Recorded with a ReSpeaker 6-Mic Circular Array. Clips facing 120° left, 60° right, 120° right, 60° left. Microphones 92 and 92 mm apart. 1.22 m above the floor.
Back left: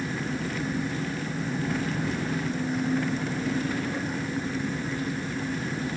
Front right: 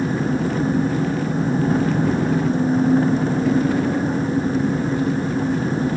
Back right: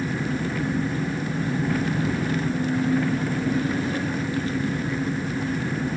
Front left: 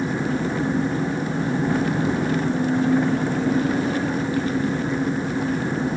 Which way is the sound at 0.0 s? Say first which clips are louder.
Front right 10 dB, front left 3 dB; 5° right.